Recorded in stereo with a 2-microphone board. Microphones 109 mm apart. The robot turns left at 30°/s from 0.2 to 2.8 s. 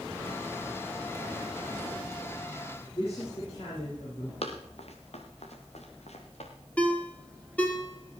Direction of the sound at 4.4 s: 70° left (ahead or behind).